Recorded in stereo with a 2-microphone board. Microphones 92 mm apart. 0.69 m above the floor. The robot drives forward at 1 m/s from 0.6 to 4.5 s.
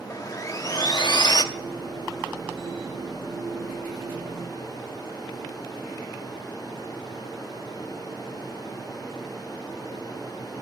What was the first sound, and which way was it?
Sawing, 40° left (ahead or behind).